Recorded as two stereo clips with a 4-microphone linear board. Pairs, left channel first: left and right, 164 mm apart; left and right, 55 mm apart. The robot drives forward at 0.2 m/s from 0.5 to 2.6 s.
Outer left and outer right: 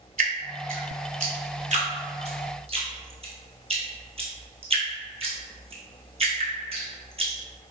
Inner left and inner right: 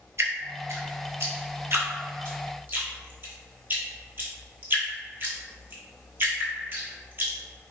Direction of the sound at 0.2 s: 60° right (ahead or behind).